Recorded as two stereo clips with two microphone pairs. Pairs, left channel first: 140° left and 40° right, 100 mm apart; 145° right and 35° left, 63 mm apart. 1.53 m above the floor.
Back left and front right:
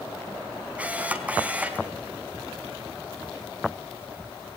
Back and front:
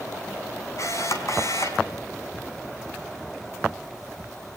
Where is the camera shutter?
115° right, 3.5 m.